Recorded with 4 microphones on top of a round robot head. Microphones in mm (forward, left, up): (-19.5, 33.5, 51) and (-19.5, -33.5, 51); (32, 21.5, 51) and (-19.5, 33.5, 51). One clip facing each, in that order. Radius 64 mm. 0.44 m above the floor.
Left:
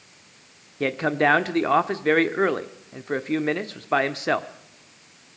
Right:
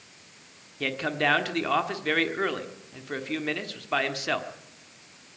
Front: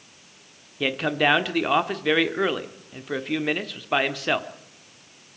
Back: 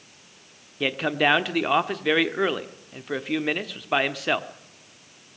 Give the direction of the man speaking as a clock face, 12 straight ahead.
9 o'clock.